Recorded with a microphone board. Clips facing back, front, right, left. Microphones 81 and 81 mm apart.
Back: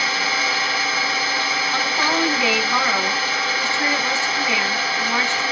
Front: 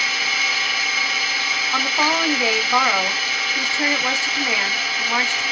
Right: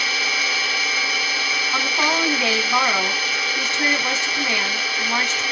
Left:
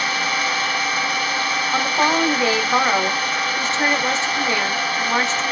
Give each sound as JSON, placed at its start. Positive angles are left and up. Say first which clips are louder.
{"t": 0.0, "sound": "an engine running", "louder": "back 2 dB, left 3 dB", "azimuth_deg": 135, "distance_m": 0.9}
{"t": 1.7, "sound": "a woman speaking", "louder": "front 2 dB, left 3 dB", "azimuth_deg": 55, "distance_m": 1.5}